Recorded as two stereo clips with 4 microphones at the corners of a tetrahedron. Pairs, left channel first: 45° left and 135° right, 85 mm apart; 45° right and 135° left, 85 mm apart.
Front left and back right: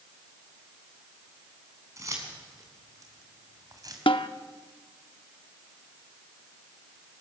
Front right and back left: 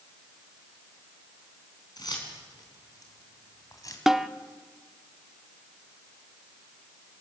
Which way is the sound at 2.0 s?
85° right.